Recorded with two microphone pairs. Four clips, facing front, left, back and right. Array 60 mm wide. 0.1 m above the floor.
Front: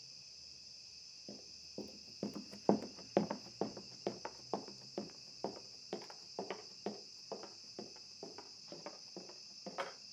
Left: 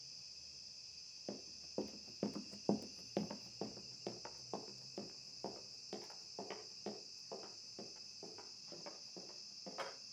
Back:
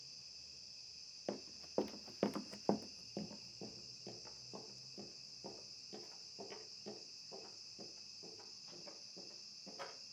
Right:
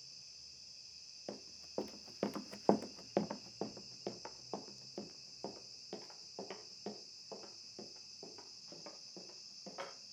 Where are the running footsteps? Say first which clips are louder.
Right 1 dB, back 10 dB; 160° right, 1.4 m; by 9.9 s straight ahead, 7 m.